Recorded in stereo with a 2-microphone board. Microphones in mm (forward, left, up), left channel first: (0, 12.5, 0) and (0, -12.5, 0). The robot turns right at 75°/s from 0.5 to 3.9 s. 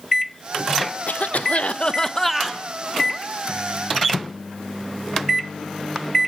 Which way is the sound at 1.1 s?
80° left.